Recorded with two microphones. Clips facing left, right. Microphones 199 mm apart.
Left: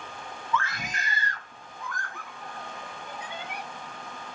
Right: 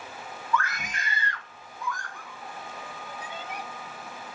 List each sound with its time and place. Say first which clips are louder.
0.5 s a scream: right 1 dB; 25° left (ahead or behind), 1.3 m; by 3.6 s 70° left (ahead or behind), 3.5 m